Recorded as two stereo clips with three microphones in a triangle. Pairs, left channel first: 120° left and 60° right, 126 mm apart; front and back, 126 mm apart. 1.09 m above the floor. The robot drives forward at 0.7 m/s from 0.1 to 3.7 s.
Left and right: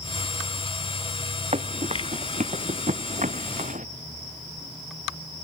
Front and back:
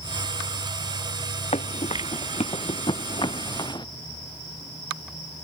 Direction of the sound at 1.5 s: 30° right.